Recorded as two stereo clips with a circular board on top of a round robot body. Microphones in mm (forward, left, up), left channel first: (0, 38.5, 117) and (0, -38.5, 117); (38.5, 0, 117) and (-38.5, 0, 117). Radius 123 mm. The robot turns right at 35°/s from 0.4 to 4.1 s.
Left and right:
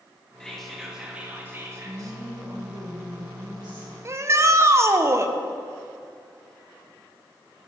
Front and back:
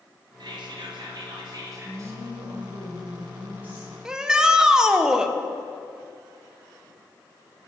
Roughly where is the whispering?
Behind.